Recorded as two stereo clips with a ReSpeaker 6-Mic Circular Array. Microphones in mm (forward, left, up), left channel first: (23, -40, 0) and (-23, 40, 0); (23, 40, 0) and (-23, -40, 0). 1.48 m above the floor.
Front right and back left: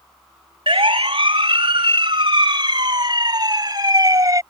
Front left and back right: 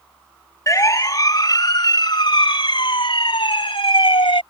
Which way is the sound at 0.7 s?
110° left.